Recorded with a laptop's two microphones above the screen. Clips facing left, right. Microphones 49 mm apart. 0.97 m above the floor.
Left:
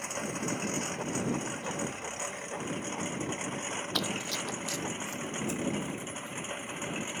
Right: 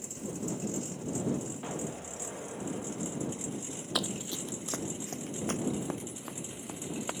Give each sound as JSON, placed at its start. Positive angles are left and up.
{"t": 0.0, "sound": "a lawn mower", "side_deg": 65}
{"t": 1.6, "sound": "an explosion", "side_deg": -25}
{"t": 4.0, "sound": "running footsteps", "side_deg": -5}